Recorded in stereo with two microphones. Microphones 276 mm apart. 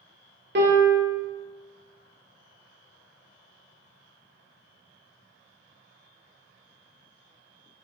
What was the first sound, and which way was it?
A piano, 40° right (ahead or behind).